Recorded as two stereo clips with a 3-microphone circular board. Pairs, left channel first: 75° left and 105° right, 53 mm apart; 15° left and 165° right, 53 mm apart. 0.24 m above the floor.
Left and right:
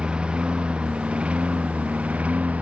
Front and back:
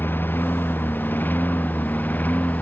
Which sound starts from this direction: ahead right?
A lawn mower, at 0.0 s.